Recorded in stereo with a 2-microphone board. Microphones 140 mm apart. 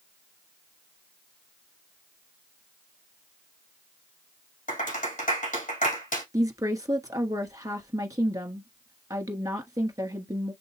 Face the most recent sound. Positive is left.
turn(degrees=-25)  # may be behind; listen again after turning